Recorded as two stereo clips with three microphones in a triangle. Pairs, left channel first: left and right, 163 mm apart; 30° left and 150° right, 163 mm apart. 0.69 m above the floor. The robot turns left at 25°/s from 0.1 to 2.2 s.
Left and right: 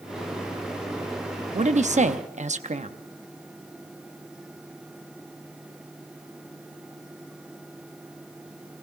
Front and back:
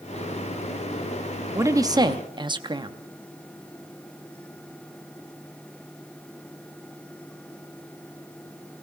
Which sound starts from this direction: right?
A man speaking, at 1.5 s.